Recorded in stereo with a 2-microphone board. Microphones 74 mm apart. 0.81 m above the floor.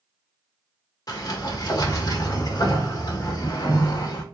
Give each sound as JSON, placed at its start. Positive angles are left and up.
{"t": 1.1, "sound": "a sliding door", "side_deg": 55, "distance_m": 1.2}